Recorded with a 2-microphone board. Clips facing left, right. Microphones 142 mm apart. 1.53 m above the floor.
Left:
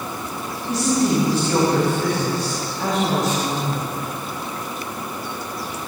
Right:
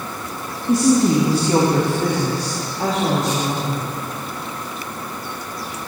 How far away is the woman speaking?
About 3 m.